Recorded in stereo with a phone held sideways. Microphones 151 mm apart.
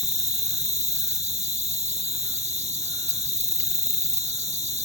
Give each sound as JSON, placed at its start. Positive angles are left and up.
{"t": 0.0, "sound": "an insect", "side_deg": -45}